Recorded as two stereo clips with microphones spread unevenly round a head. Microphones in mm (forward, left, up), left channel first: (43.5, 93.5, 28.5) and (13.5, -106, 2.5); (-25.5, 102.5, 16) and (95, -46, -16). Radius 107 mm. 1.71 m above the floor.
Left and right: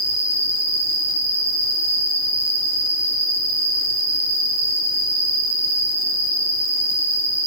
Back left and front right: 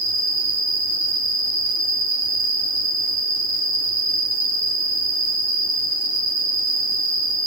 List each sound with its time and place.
0.0 s an insect: 5° right, 4.5 m